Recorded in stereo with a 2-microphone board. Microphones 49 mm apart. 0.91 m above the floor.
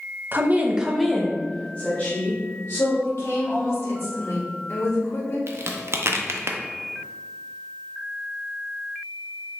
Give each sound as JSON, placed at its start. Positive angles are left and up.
{"t": 0.3, "sound": "a woman speaking", "side_deg": -40, "distance_m": 0.6}
{"t": 3.0, "sound": "a woman speaking", "side_deg": 65, "distance_m": 1.8}
{"t": 5.5, "sound": "a crack", "side_deg": -55, "distance_m": 0.5}